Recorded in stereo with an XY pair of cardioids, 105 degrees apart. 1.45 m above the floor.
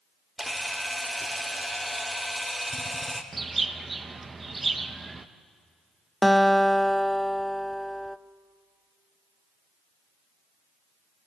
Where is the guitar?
Straight ahead, 0.6 m.